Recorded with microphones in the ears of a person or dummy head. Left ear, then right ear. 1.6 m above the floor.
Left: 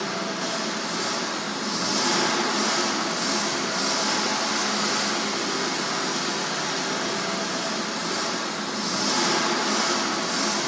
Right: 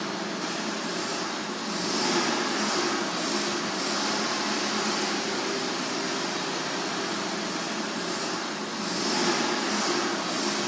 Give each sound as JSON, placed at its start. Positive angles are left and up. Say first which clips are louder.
{"t": 0.0, "sound": "an engine running", "louder": "left 3 dB", "side_deg": 0, "distance_m": 2.5}